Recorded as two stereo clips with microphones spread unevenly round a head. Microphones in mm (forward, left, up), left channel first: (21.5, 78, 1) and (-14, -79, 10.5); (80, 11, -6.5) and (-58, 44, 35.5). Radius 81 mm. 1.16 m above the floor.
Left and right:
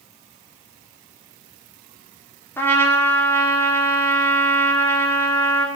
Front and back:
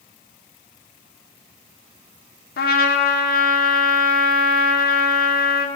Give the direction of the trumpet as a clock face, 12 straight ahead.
12 o'clock.